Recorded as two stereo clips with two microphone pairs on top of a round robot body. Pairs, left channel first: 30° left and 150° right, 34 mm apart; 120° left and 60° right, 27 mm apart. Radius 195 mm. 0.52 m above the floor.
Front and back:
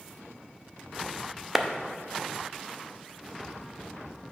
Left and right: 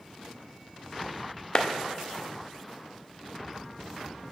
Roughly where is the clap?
Behind left.